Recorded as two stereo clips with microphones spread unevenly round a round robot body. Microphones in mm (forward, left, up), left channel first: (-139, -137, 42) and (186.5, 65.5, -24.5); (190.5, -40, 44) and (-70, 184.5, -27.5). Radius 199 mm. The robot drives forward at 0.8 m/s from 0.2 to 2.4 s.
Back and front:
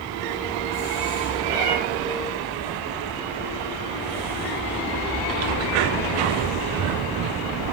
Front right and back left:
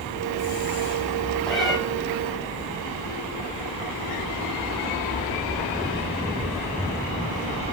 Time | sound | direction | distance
1.5 | a cat meowing | 45° left | 3.5 m